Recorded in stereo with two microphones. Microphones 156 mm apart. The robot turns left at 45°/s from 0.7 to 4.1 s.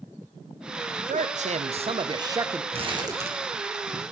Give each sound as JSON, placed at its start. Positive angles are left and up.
{"t": 1.1, "sound": "a man speaking", "azimuth_deg": -95, "distance_m": 0.6}
{"t": 2.7, "sound": "crumpling", "side_deg": -40, "distance_m": 1.3}